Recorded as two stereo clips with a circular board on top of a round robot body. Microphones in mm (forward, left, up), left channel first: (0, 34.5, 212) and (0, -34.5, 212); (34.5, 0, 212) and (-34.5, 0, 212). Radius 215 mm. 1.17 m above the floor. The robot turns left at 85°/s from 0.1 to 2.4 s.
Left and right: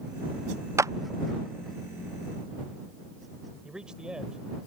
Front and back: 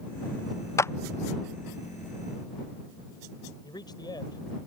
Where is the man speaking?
10° right.